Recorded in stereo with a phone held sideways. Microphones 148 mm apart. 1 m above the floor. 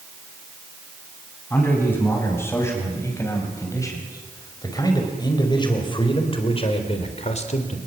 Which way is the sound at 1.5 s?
15° left (ahead or behind).